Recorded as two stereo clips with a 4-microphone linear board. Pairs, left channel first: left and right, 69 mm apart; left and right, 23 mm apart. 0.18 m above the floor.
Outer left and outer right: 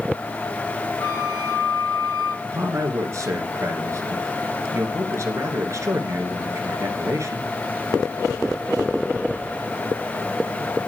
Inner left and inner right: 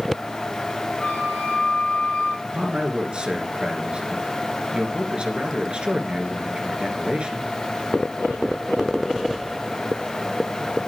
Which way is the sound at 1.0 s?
85° left.